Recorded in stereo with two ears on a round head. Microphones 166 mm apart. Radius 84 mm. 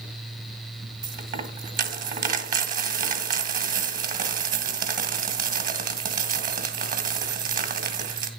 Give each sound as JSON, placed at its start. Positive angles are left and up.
{"t": 1.0, "sound": "a dropped coin", "side_deg": -50, "distance_m": 1.6}